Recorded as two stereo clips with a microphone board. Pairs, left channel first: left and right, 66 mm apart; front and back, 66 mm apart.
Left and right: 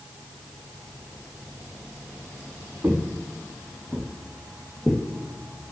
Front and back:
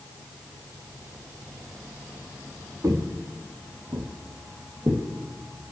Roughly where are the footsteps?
Behind right.